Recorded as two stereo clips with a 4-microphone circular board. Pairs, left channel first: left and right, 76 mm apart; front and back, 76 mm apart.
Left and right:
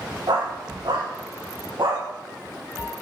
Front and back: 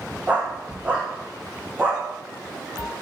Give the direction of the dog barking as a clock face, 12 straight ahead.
4 o'clock.